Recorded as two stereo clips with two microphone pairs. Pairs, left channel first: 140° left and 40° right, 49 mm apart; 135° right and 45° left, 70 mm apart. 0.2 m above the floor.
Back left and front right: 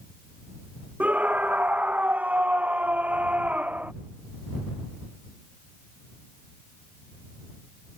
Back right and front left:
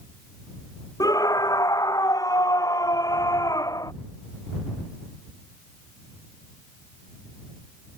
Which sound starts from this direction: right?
A scream, at 1.0 s.